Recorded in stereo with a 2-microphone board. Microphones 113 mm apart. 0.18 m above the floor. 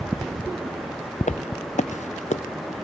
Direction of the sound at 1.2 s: 80° left.